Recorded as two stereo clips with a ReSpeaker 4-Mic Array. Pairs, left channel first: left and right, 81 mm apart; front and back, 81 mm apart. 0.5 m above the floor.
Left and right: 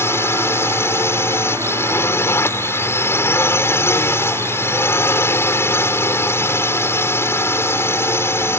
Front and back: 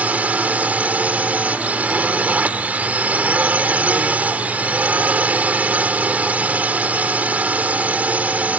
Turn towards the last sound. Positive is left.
turn(degrees=120)